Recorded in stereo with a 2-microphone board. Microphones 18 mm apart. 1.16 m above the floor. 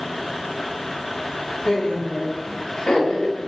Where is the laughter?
65° left (ahead or behind), 4 m; by 3.5 s 75° left (ahead or behind), 6 m.